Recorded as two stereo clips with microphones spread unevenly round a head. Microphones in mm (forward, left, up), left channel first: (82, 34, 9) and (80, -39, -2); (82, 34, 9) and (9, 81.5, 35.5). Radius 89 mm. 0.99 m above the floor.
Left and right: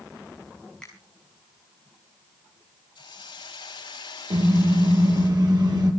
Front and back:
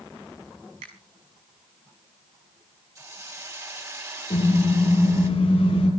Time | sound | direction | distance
0.8 | a finger snap | 175° left | 5.5 m
3.0 | a hiss | 90° left | 4 m
4.3 | a car horn | 70° right | 9.5 m